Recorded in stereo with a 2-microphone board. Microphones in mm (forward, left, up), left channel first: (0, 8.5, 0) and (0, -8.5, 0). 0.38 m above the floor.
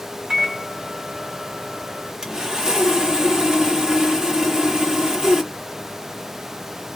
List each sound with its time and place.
0.3 s a microwave: 50° right (ahead or behind), 1.7 m
2.2 s sawing: 35° right (ahead or behind), 1.2 m